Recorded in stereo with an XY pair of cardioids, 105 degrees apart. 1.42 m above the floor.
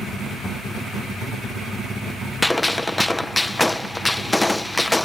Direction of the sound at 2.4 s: 15° left.